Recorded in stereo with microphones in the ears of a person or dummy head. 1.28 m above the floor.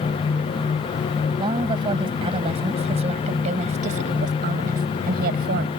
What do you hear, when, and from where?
1.4 s a woman speaking: 25° right (ahead or behind); by 5.7 s 55° right (ahead or behind)